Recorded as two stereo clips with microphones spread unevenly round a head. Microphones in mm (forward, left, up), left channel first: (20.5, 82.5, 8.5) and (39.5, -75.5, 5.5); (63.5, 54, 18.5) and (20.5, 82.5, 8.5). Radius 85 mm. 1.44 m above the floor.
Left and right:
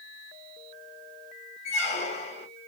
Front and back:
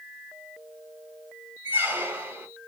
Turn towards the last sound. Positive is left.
turn(degrees=105)